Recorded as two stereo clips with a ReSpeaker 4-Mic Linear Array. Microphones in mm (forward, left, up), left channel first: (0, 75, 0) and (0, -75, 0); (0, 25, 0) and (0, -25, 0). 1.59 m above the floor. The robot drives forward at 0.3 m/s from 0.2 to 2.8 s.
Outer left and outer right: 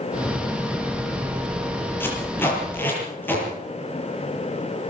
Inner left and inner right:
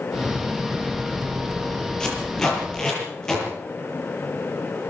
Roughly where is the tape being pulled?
Centre.